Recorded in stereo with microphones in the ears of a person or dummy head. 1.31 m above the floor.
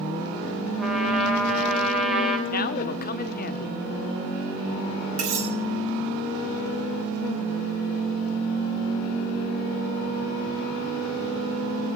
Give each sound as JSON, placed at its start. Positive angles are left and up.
{"t": 0.8, "sound": "a trumpet", "side_deg": -5, "distance_m": 2.5}
{"t": 2.5, "sound": "a man speaking", "side_deg": 45, "distance_m": 1.0}
{"t": 5.2, "sound": "cutlery clinking", "side_deg": -85, "distance_m": 6.5}